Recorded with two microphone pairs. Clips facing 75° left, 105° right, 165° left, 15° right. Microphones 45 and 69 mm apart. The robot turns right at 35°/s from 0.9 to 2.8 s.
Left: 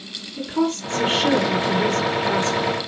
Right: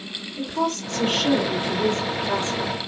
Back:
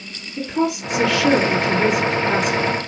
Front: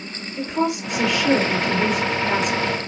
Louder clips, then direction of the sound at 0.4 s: Left 3 dB, back 1 dB; 50° left.